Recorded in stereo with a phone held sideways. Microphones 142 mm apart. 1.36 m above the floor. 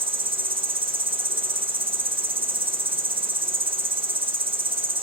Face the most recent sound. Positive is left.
turn(degrees=-40)  # may be behind; listen again after turning